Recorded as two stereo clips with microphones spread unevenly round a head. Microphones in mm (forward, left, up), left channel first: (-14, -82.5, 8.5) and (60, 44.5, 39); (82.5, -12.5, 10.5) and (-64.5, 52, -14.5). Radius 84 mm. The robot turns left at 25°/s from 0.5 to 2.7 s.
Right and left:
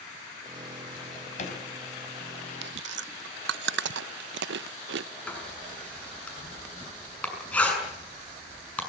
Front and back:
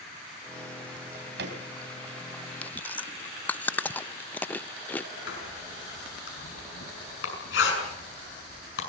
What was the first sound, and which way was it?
A drawer, 160° right.